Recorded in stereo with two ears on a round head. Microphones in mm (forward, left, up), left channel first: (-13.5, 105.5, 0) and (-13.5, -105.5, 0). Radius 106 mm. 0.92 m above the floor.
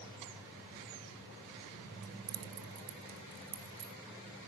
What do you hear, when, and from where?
2.0 s keys jangling: 30° right (ahead or behind), 0.8 m; by 3.9 s 60° right (ahead or behind), 2.5 m